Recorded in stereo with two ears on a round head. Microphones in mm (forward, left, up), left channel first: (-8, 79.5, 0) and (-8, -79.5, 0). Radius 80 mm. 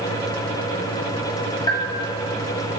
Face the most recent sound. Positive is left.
turn(degrees=20)  # may be behind; listen again after turning